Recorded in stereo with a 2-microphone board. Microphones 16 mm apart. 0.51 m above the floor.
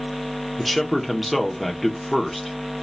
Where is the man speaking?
Centre (ahead or behind), 0.8 m.